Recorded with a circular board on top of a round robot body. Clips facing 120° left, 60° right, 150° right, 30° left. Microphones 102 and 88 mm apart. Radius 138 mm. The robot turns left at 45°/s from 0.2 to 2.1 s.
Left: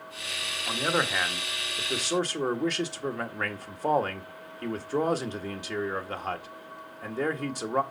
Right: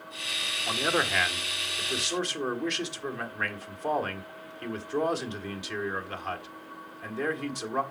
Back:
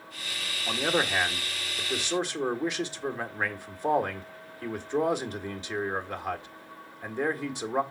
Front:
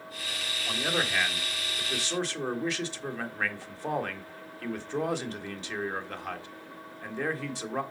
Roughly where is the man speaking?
Behind right.